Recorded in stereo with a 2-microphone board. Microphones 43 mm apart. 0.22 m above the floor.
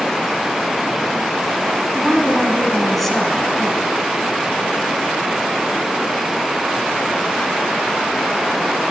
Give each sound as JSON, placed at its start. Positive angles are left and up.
{"t": 1.9, "sound": "a woman speaking", "side_deg": 5, "distance_m": 1.6}